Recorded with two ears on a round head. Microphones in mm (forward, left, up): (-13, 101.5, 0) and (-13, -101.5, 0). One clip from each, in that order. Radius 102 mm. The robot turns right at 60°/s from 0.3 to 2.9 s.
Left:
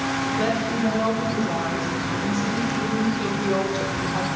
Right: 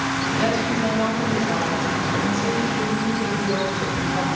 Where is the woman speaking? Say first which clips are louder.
Right 2 dB; 145° right, 4.5 m; by 4.3 s 5° left, 4.5 m.